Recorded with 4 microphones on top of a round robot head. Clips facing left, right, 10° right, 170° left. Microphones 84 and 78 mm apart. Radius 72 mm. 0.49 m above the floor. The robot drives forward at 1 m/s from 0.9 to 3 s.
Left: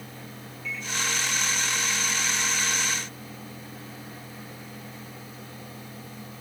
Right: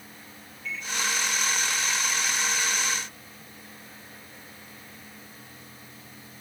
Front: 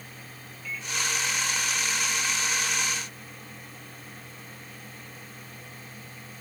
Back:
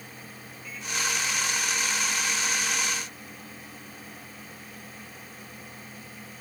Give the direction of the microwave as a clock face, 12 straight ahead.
1 o'clock.